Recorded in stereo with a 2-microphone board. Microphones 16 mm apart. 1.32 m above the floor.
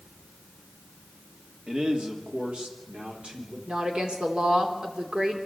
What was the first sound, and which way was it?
A man speaking, 70° right (ahead or behind).